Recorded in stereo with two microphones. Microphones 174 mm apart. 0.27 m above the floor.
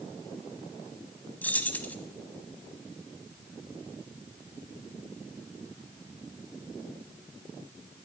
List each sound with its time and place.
1.4 s keys jangling: 10° left (ahead or behind), 1.1 m